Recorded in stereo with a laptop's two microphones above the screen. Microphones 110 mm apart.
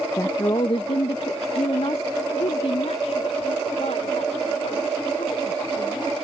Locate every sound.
0.2 s a woman speaking: 30° left (ahead or behind); by 6.1 s 80° left